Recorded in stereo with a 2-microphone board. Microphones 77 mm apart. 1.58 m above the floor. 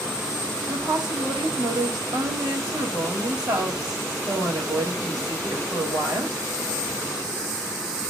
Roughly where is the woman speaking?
Right.